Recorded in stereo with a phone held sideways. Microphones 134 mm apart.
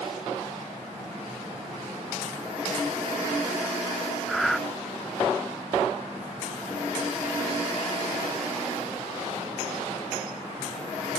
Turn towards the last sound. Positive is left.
turn(degrees=0)  # may be behind; listen again after turning